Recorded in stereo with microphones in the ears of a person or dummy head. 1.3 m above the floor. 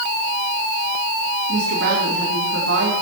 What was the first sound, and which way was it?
A woman speaking, 75° right (ahead or behind).